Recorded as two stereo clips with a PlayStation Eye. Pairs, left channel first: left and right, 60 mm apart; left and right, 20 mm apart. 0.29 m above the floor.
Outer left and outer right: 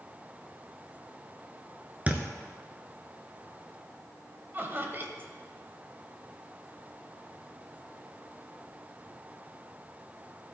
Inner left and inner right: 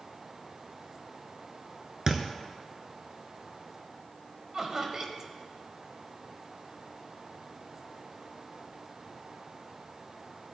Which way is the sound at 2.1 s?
25° right (ahead or behind).